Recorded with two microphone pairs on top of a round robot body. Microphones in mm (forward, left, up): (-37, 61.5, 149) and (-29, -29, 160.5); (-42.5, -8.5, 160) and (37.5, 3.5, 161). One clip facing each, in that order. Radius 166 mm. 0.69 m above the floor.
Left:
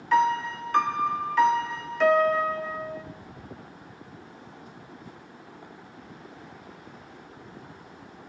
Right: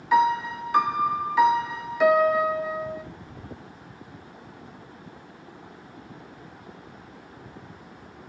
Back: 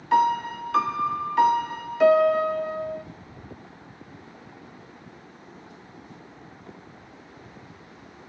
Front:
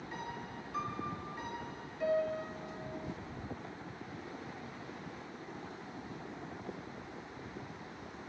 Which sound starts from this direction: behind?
A piano, at 0.1 s.